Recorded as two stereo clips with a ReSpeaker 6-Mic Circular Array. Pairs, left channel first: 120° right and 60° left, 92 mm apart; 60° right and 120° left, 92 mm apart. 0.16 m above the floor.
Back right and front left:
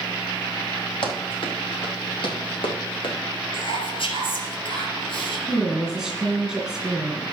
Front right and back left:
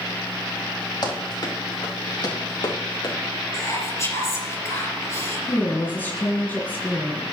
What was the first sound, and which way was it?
Running footsteps, 95° right.